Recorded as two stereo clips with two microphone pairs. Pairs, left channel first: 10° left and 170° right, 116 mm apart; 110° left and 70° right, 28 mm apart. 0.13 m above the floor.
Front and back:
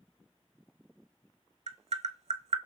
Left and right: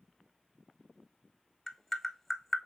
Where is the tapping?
175° right, 0.5 m.